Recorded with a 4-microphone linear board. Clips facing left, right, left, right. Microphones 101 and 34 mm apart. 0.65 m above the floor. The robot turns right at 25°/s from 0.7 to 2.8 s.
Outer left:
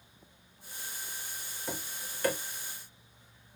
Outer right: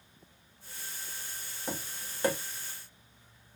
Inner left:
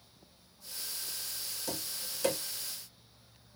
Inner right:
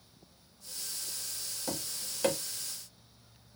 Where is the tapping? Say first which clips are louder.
Outer right 2 dB, inner right 2 dB; 20° right (ahead or behind), 0.8 m; by 2.4 s 25° right (ahead or behind), 0.8 m.